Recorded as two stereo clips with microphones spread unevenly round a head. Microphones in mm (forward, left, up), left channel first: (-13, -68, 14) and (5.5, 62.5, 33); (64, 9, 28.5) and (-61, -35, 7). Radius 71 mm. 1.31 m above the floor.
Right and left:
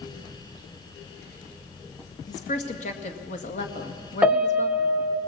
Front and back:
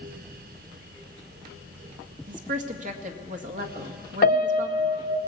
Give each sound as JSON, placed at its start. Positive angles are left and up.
{"t": 2.3, "sound": "a woman speaking", "azimuth_deg": -135, "distance_m": 2.0}
{"t": 4.2, "sound": "a piano", "azimuth_deg": -5, "distance_m": 1.1}